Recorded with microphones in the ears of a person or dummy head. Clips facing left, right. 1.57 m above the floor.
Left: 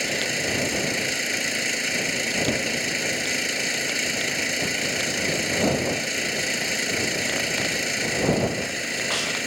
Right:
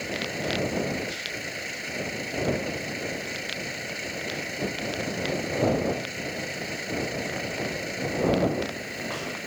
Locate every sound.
0.0 s an engine running: 75° left (ahead or behind)